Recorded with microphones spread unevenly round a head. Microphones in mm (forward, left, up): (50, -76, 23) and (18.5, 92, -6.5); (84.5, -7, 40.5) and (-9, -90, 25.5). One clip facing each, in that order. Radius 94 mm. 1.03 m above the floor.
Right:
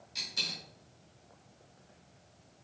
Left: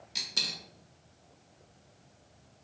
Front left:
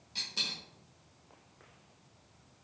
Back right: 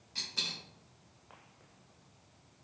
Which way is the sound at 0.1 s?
105° left.